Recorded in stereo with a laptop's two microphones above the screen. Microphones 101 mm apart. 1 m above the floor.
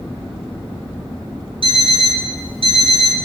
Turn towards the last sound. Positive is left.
turn(degrees=-65)  # may be behind; listen again after turning